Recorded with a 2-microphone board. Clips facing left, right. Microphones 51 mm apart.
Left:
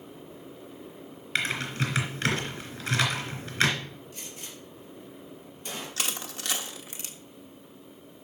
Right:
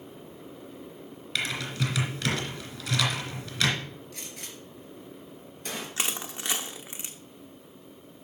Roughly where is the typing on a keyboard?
Left.